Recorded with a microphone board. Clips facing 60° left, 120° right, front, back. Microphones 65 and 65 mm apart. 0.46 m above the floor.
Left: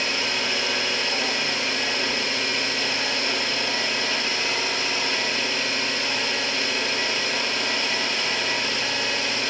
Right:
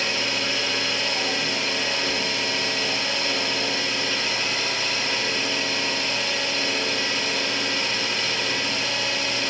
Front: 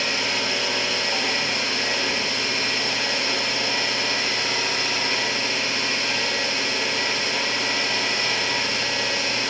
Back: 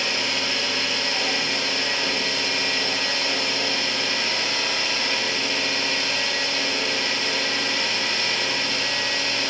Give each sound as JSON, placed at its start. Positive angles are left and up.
{"t": 0.0, "sound": "an engine running", "azimuth_deg": 60, "distance_m": 0.9}